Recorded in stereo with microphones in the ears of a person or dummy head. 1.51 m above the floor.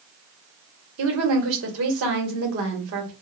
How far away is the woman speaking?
About 1.3 m.